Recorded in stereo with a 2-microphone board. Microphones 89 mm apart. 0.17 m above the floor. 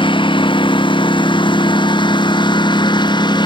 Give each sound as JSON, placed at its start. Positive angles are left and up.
{"t": 0.0, "sound": "a lawn mower", "side_deg": 70}